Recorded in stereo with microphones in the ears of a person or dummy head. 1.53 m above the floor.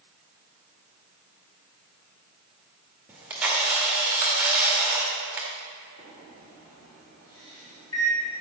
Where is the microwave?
20° left (ahead or behind), 3 m.